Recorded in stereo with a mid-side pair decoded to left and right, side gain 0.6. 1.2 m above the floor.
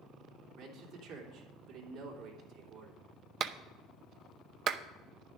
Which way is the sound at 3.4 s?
55° right.